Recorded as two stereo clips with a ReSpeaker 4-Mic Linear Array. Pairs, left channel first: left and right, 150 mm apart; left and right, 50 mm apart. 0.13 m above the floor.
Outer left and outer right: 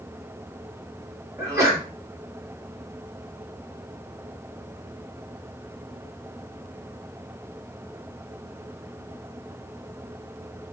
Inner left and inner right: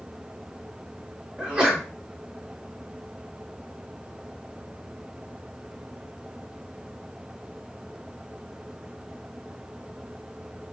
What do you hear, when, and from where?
1.4 s a sneeze: 20° right (ahead or behind), 1.4 m